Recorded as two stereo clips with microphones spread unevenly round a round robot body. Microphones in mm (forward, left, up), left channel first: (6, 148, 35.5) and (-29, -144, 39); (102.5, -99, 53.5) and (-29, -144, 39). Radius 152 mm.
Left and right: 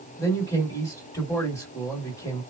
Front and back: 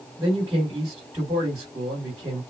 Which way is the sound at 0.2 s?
150° left.